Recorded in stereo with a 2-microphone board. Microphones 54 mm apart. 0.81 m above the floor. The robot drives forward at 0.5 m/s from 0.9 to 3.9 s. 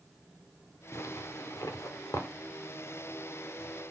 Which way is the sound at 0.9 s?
80° left.